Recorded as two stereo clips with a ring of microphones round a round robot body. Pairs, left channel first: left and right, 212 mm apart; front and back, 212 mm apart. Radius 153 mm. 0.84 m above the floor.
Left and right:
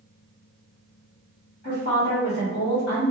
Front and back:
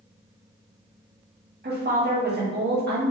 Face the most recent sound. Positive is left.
turn(degrees=140)